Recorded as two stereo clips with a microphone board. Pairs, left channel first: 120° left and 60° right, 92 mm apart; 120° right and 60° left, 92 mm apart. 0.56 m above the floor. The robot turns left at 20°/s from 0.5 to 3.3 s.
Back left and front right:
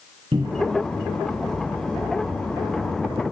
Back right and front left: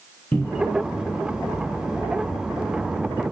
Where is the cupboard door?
50° right, 3.5 m; by 0.8 s 55° right, 3.5 m.